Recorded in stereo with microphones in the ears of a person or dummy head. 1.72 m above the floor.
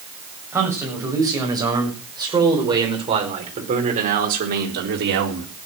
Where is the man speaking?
10° right (ahead or behind), 8 m; by 5.5 s 60° right (ahead or behind), 4 m.